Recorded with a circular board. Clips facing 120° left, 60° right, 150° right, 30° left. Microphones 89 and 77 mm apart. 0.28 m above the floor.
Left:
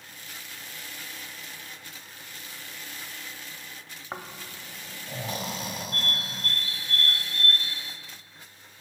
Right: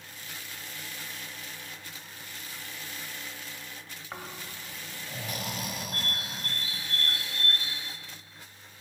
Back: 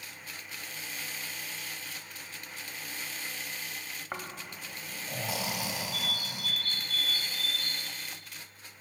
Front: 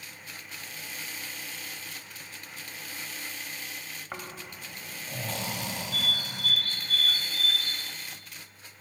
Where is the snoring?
140° left, 0.8 m.